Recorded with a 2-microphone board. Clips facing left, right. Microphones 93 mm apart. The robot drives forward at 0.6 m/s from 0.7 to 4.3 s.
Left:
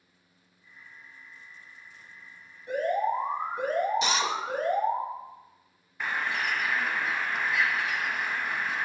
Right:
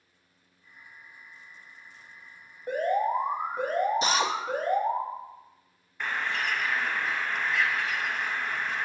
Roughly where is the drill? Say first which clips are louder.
Right 2 dB; right.